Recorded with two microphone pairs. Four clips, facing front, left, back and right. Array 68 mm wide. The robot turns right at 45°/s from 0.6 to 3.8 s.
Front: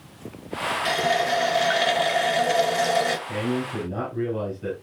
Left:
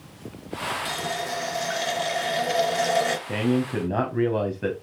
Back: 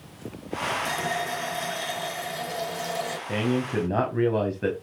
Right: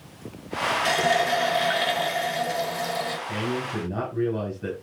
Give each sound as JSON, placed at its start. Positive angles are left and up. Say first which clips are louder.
{"t": 0.8, "sound": "a running tap", "louder": "right 8 dB, front 6 dB", "azimuth_deg": -60, "distance_m": 1.7}
{"t": 3.3, "sound": "a man speaking", "louder": "left 4 dB, back 1 dB", "azimuth_deg": 115, "distance_m": 3.5}